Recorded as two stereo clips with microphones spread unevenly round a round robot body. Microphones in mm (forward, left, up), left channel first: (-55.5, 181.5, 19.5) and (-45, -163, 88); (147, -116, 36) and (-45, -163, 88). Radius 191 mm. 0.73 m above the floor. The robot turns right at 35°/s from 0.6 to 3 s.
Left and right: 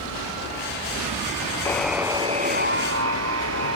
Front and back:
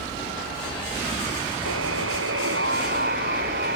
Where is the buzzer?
175° left; by 3.8 s 135° right.